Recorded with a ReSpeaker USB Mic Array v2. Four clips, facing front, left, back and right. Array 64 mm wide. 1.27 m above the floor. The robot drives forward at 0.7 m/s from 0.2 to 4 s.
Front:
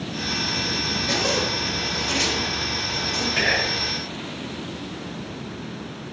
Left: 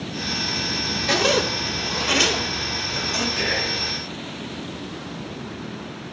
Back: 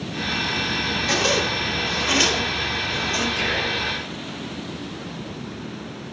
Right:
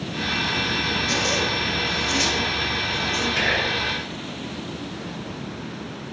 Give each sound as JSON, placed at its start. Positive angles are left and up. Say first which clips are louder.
{"t": 1.1, "sound": "a zipper", "louder": "left 8 dB, back 2 dB", "azimuth_deg": 105, "distance_m": 1.6}
{"t": 3.4, "sound": "whispering", "louder": "right 3 dB, front 1 dB", "azimuth_deg": -40, "distance_m": 5.0}